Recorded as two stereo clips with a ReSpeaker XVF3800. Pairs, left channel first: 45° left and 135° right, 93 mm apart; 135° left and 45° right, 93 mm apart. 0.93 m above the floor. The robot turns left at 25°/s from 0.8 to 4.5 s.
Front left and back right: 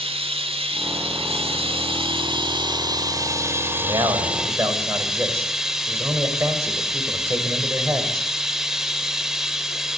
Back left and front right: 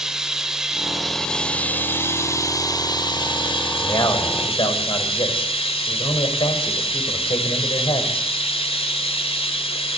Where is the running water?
130° right, 1.8 m; by 10.0 s 140° left, 1.8 m.